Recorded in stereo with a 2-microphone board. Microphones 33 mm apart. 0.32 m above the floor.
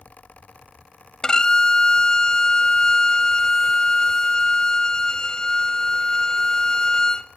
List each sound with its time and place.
1.2 s a violin: 20° left (ahead or behind), 0.7 m